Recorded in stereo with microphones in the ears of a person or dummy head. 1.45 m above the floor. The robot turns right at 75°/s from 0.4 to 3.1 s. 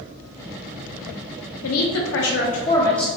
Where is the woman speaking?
75° left, 0.8 m; by 3.1 s 175° right, 0.8 m.